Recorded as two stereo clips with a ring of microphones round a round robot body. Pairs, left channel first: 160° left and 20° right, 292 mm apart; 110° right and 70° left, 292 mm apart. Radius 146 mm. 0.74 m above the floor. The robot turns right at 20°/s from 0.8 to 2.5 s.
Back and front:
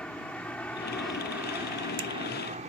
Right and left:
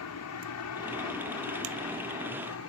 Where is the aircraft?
115° right; by 2.7 s 85° right.